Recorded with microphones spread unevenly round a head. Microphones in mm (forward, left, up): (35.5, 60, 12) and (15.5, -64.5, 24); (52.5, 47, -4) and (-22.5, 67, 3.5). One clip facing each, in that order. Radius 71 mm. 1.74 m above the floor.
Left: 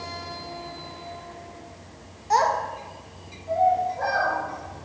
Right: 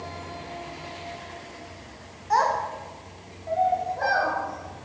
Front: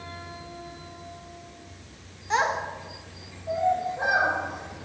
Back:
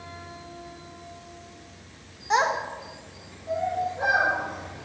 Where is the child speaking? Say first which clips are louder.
Left 1 dB, back 2 dB; 130° left, 0.6 m; by 4.8 s 85° right, 3 m.